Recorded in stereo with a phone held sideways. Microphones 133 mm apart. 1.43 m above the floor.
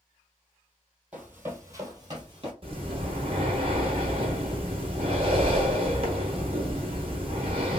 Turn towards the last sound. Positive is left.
turn(degrees=-40)  # may be behind; listen again after turning